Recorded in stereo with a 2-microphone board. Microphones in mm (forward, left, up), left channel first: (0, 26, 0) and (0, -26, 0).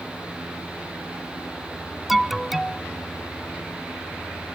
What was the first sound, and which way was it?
An alarm, centre (ahead or behind).